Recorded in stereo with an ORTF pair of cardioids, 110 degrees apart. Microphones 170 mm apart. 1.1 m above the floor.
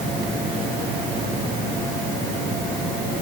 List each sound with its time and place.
Only background noise.